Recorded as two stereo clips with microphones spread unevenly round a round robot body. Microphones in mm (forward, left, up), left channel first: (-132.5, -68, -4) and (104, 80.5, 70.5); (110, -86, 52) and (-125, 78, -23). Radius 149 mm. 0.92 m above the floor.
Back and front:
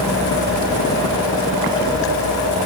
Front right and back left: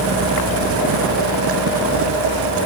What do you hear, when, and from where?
Only background noise.